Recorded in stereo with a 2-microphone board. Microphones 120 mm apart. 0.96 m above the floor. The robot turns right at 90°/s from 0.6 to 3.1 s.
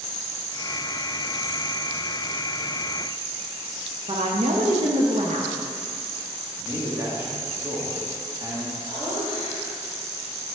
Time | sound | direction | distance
4.1 | a woman speaking | 70° right (ahead or behind) | 0.8 m
6.6 | a man speaking | 30° right (ahead or behind) | 1.5 m
8.9 | laughter | 40° right (ahead or behind) | 2.5 m